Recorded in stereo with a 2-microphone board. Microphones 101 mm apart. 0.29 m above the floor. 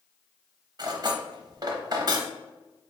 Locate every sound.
0.8 s cutlery clinking: 40° right (ahead or behind), 0.8 m